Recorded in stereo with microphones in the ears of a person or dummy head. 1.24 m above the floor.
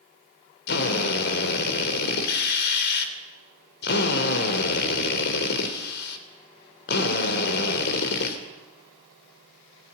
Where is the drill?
65° left (ahead or behind), 3 m.